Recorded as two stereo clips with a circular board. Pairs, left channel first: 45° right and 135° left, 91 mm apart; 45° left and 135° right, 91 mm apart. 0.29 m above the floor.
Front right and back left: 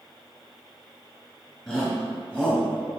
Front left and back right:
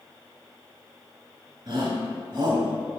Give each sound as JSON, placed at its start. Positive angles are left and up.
{"t": 1.7, "sound": "a shout", "azimuth_deg": -145, "distance_m": 1.9}